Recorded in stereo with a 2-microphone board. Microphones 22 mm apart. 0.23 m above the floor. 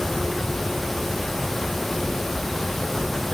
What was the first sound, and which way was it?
Only background noise.